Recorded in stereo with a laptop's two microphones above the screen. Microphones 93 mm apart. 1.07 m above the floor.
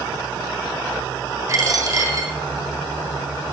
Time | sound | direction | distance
1.5 | a dropped coin | 35° right (ahead or behind) | 2 m